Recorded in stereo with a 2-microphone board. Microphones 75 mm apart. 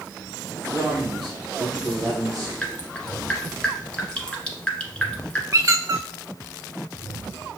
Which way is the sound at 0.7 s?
60° right (ahead or behind).